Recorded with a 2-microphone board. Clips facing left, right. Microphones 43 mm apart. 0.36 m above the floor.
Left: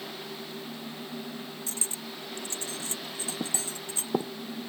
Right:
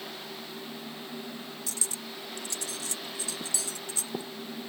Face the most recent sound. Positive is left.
turn(degrees=30)  # may be behind; listen again after turning